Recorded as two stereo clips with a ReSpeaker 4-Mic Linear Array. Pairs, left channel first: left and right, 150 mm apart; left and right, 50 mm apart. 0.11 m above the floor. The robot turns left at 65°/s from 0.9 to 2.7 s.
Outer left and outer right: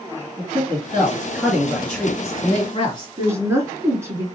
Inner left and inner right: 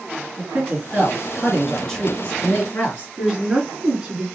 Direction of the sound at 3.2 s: 20° right (ahead or behind).